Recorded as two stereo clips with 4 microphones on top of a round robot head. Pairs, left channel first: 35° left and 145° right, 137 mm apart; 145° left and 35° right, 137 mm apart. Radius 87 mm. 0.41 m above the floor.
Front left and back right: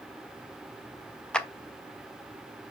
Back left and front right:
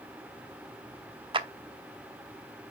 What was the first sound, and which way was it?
A clap, 45° right.